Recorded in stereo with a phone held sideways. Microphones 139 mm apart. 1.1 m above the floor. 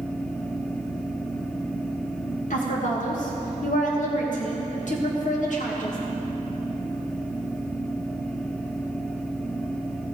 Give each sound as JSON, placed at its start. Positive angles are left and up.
{"t": 0.0, "sound": "a fan", "side_deg": 5, "distance_m": 0.8}
{"t": 2.5, "sound": "a woman speaking", "side_deg": 65, "distance_m": 1.4}